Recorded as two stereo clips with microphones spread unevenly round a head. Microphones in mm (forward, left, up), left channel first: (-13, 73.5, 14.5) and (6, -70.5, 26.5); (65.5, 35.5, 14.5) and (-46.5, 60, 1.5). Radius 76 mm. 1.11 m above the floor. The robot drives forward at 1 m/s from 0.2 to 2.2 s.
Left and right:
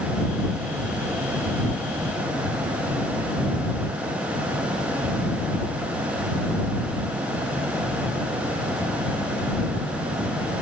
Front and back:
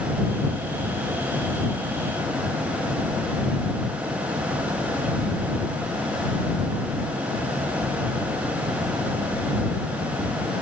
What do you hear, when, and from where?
Only background noise.